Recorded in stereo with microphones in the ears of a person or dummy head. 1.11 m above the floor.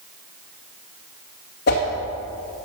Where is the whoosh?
55° left (ahead or behind), 2 m.